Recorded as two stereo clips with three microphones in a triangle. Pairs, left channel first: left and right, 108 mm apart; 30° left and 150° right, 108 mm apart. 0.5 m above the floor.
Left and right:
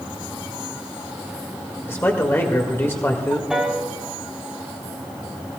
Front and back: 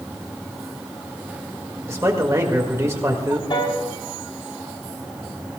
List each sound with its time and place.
1.9 s a man speaking: 155° left, 1.7 m
3.5 s a piano: 5° right, 3 m